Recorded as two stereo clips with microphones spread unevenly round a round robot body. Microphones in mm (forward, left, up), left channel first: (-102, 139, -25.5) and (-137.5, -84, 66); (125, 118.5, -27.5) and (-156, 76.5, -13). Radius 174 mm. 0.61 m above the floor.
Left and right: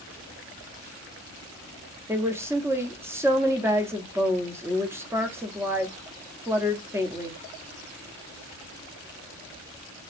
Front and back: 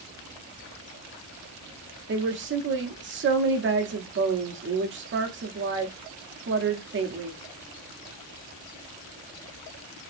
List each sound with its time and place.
2.1 s a woman speaking: 160° left, 0.9 m